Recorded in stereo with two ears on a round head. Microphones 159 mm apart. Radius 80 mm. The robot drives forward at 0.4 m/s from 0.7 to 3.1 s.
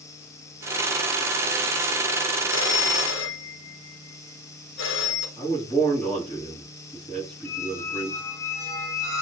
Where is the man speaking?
10° left (ahead or behind), 4.5 m.